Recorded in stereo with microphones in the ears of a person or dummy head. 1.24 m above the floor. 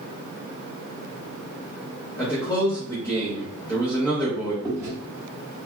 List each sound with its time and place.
2.2 s a man speaking: 15° left (ahead or behind), 0.9 m
4.6 s chewing: 15° right (ahead or behind), 1.4 m